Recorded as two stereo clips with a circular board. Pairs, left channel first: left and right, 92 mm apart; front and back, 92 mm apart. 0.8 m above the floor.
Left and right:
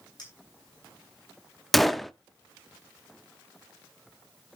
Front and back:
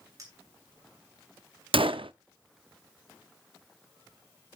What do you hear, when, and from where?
0.2 s a clink: 130° left, 7 m
1.7 s a gunshot: straight behind, 0.5 m